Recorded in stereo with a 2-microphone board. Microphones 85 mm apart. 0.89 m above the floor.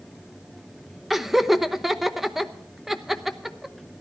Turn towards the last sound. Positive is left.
turn(degrees=0)  # may be behind; listen again after turning